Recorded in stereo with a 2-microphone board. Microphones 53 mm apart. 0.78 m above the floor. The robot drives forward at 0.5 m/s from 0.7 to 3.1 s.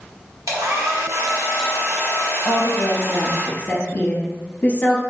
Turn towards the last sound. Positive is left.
turn(degrees=35)  # may be behind; listen again after turning